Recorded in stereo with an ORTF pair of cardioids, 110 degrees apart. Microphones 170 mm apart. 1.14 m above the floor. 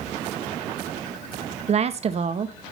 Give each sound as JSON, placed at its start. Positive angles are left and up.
{"t": 1.7, "sound": "a woman speaking", "azimuth_deg": -40, "distance_m": 0.9}